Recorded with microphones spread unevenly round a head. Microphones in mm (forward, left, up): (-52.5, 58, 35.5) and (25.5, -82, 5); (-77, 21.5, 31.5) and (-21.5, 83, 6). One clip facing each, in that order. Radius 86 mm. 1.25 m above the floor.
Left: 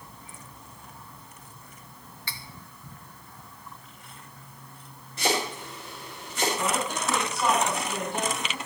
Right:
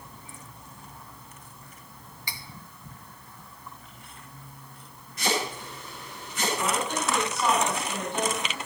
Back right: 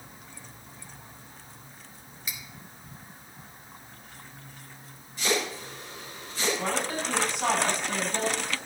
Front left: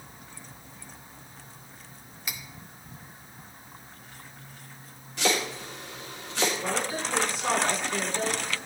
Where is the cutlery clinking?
25° left, 0.6 m.